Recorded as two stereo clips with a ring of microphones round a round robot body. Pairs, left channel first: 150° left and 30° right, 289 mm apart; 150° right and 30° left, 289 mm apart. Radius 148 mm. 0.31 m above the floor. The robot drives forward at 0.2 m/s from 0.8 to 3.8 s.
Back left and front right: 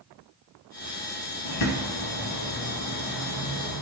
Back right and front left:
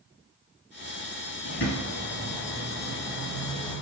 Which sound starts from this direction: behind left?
A bird, at 1.4 s.